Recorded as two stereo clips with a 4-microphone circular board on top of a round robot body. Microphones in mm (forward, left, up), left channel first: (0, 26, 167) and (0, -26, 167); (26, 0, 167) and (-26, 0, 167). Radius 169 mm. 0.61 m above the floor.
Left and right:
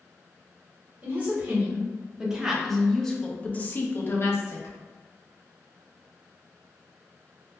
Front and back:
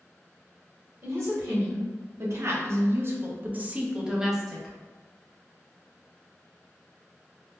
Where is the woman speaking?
150° right, 1.6 m; by 4.8 s 85° left, 1.0 m.